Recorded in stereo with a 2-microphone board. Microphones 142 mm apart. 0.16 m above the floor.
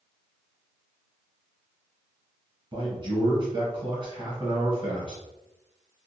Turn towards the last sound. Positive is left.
turn(degrees=-35)  # may be behind; listen again after turning